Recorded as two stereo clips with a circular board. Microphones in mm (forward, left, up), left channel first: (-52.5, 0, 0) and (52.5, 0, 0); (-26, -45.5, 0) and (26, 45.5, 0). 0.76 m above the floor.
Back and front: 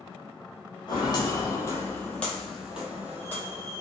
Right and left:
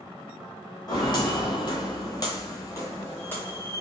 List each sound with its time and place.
0.9 s footsteps: 155° right, 1.2 m; by 3.8 s 45° right, 1.2 m